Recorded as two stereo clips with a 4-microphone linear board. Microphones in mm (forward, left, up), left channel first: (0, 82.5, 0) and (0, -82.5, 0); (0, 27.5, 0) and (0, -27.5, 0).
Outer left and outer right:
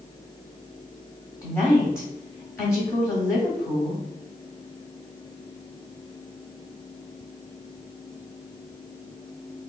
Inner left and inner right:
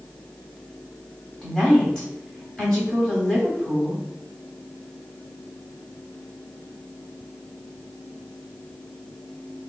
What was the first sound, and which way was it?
A woman speaking, 15° left (ahead or behind).